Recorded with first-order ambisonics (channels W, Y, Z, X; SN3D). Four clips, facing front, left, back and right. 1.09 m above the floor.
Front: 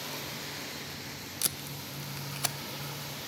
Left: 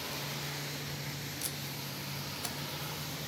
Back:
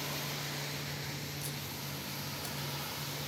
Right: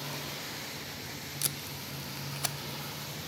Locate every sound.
1.4 s tape being pulled: 30° right, 0.6 m